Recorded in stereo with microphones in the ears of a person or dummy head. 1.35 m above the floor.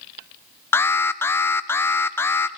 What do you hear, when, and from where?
0.7 s an alarm: 10° left (ahead or behind), 0.6 m